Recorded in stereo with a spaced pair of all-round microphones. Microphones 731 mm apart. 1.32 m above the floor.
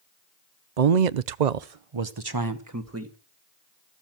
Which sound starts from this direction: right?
A man speaking, at 0.8 s.